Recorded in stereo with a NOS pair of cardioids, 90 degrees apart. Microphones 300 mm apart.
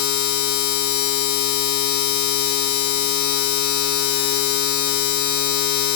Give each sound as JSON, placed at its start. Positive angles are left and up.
{"t": 0.0, "sound": "a machine running", "azimuth_deg": 70, "distance_m": 1.0}